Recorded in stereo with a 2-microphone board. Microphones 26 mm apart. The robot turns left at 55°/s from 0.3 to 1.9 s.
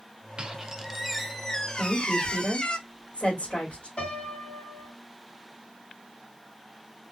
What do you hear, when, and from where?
0.4 s a squeak: 140° right, 0.5 m; by 2.8 s 135° left, 0.5 m
1.8 s a woman speaking: 60° left (ahead or behind), 2 m; by 3.9 s 55° left (ahead or behind), 2 m
4.0 s a piano: 50° left (ahead or behind), 1.8 m